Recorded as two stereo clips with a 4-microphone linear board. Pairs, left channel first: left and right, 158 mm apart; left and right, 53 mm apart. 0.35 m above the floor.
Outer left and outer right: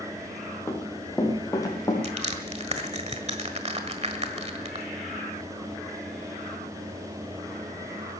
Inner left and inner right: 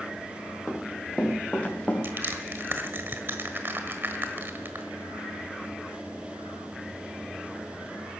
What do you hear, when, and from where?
0.7 s running footsteps: 20° left (ahead or behind), 4 m; by 1.9 s 25° left (ahead or behind), 4.5 m
2.0 s crushing: 45° right (ahead or behind), 1.4 m